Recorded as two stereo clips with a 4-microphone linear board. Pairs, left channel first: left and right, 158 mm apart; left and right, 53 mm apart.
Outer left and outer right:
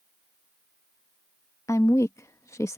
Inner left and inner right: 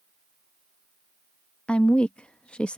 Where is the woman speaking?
20° left (ahead or behind).